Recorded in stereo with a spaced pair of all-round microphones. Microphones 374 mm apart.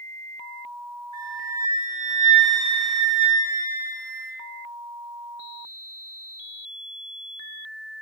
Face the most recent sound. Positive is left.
turn(degrees=45)  # may be behind; listen again after turning